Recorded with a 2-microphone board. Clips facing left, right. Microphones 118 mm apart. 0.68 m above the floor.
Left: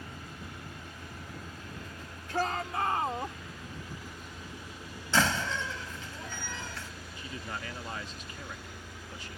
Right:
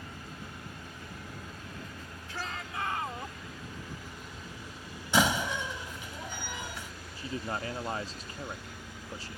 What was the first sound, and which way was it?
A shout, 55° left (ahead or behind).